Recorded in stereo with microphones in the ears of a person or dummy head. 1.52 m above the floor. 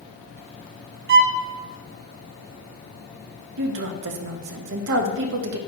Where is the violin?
60° right (ahead or behind), 0.6 m.